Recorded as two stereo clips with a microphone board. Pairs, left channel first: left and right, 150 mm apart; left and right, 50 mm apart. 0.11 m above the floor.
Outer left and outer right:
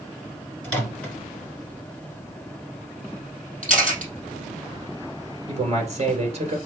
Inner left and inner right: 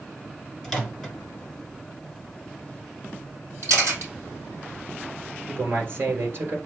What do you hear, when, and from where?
0.6 s a microwave: 10° left (ahead or behind), 1.6 m
3.6 s a camera shutter: 60° right (ahead or behind), 3 m
5.5 s a man speaking: 45° right (ahead or behind), 1.9 m